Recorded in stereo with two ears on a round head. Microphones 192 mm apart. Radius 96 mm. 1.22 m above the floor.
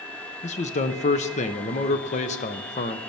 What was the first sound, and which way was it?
A man speaking, 35° left (ahead or behind).